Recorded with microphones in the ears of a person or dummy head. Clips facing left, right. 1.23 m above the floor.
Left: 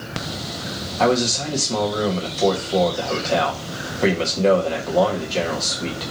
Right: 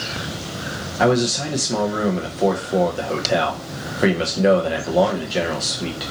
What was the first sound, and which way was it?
A man speaking, 15° right (ahead or behind).